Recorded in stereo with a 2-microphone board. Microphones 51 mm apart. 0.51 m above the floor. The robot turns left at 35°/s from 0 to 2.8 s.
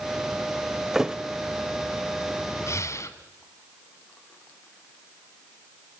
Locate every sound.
0.9 s a thud: 10° right (ahead or behind), 0.8 m; by 1.2 s 15° right (ahead or behind), 0.8 m
2.7 s breathing: 65° left (ahead or behind), 1.2 m; by 3.2 s 70° left (ahead or behind), 1.2 m